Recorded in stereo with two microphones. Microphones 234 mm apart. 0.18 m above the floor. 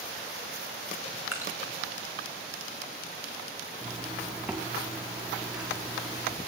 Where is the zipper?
5° right (ahead or behind), 5.5 m.